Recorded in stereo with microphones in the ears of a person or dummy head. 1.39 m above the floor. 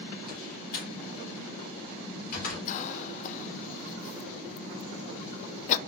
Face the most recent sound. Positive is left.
turn(degrees=40)  # may be behind; listen again after turning